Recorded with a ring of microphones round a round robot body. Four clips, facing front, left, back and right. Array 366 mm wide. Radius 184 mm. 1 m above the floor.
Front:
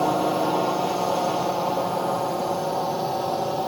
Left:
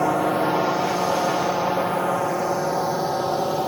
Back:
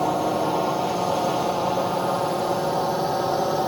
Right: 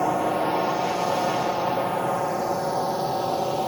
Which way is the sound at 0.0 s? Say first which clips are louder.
Left 2 dB, front 1 dB; 65° left.